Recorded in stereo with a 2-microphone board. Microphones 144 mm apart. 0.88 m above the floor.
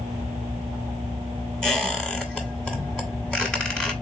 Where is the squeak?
5° left (ahead or behind), 1.3 m.